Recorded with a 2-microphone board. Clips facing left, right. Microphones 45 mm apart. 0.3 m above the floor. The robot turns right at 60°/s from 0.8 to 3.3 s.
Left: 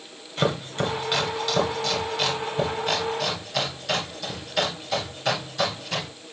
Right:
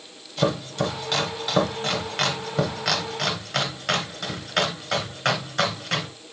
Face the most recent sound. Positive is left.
turn(degrees=-55)  # may be behind; listen again after turning